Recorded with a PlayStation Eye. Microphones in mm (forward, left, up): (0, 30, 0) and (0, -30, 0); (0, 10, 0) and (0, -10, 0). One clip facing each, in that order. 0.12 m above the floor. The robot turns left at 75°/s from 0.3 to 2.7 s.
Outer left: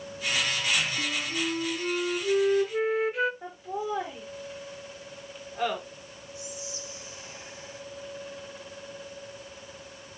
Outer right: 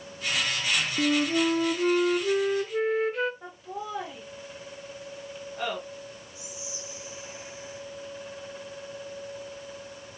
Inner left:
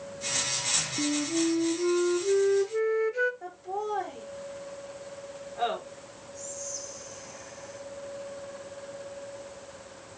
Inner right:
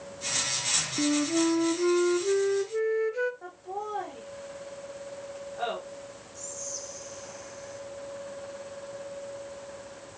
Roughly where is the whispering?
Centre.